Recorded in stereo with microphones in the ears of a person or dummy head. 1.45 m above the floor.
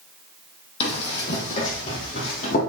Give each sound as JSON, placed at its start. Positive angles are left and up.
{"t": 0.8, "sound": "running footsteps", "side_deg": 35, "distance_m": 2.5}